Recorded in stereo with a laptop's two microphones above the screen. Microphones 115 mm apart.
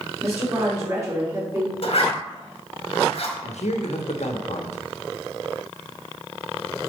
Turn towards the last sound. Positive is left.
turn(degrees=80)